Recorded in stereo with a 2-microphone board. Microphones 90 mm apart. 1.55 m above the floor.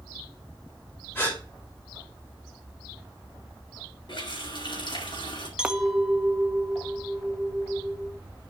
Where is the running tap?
60° left (ahead or behind), 4 m.